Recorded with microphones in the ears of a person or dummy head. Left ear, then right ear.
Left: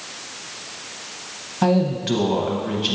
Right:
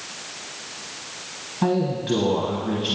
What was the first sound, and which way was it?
A woman speaking, 15° left (ahead or behind).